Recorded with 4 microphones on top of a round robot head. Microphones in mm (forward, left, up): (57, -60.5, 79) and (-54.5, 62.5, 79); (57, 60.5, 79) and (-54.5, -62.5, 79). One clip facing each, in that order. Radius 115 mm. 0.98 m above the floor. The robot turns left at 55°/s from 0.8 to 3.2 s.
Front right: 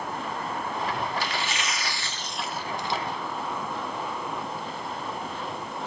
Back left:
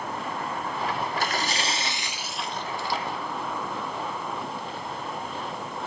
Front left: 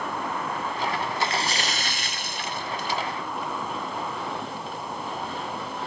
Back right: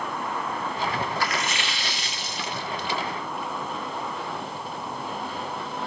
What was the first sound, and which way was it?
A splash, 110° left.